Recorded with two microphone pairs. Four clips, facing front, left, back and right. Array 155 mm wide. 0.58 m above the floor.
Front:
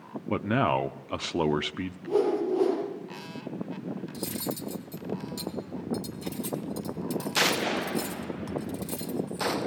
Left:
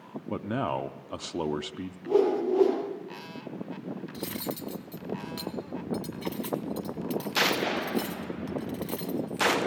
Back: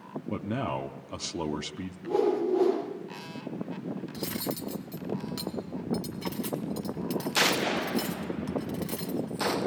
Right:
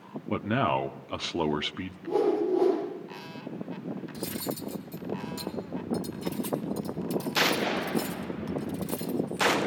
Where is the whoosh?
105° left, 6 m.